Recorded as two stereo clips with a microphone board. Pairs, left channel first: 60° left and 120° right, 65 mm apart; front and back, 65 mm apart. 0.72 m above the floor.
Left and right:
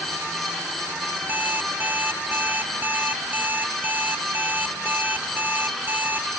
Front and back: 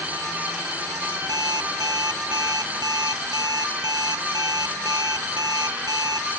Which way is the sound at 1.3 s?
175° left.